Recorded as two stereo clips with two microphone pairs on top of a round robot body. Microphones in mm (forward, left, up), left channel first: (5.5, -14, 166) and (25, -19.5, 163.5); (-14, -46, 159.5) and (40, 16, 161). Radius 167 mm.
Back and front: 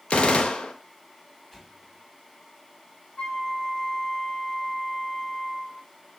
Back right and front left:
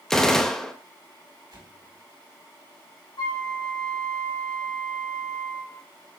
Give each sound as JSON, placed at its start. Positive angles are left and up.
{"t": 0.1, "sound": "a gunshot", "azimuth_deg": 145, "distance_m": 1.0}
{"t": 1.5, "sound": "an explosion", "azimuth_deg": 80, "distance_m": 4.5}
{"t": 3.2, "sound": "a flute", "azimuth_deg": -165, "distance_m": 4.5}